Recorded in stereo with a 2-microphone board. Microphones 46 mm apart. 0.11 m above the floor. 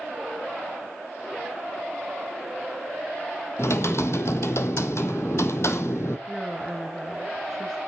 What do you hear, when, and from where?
3.6 s typing on a keyboard: 70° left (ahead or behind), 1.3 m
6.3 s a woman speaking: 5° left (ahead or behind), 1.7 m